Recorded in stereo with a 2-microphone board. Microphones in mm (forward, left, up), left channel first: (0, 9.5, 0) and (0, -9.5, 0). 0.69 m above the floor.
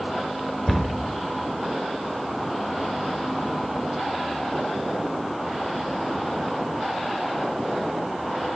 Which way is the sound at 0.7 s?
5° left (ahead or behind).